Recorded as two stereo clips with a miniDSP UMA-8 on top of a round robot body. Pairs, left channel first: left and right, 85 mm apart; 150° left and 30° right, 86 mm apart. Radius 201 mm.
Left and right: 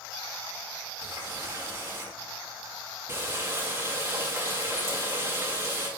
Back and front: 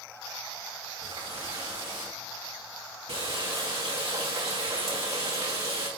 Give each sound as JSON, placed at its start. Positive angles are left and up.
{"t": 1.0, "sound": "a running tap", "azimuth_deg": -35, "distance_m": 2.5}